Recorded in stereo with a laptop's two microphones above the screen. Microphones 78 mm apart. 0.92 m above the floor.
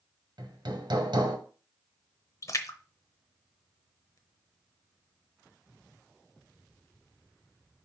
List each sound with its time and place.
0.4 s hammering: 70° right (ahead or behind), 1.3 m
2.4 s a splash: 45° left (ahead or behind), 0.8 m